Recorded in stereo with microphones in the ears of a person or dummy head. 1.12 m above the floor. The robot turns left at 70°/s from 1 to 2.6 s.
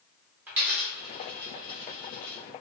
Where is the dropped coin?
10° right (ahead or behind), 0.6 m; by 2.4 s 50° left (ahead or behind), 0.6 m.